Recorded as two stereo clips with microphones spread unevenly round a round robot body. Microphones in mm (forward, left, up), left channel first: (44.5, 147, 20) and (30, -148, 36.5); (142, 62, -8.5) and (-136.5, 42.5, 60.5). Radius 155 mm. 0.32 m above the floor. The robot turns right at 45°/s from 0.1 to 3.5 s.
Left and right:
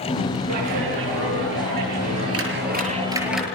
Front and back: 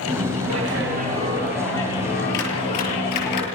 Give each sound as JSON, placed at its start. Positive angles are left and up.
{"t": 0.5, "sound": "a clap", "azimuth_deg": -135, "distance_m": 7.0}